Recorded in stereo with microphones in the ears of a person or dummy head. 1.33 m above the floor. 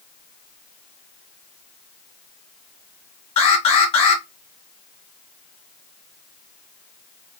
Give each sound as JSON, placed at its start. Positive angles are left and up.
{"t": 3.4, "sound": "an alarm", "side_deg": 30, "distance_m": 1.1}